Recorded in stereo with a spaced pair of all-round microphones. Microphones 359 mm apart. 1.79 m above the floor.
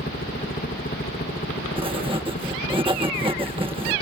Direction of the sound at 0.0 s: 25° left (ahead or behind).